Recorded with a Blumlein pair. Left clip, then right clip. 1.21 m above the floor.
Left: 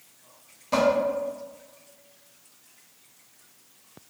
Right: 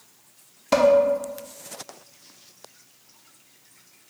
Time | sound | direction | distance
0.7 | dishes clattering | 60° right | 0.7 m